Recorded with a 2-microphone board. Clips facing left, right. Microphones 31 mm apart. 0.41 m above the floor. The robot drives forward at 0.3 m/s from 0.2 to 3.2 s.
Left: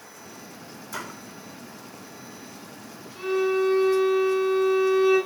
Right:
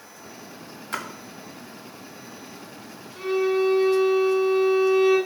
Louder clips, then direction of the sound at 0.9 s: Right 4 dB; 50° right (ahead or behind).